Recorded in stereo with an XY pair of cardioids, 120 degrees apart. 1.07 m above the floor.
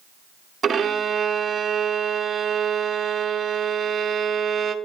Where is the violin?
35° right, 0.8 m.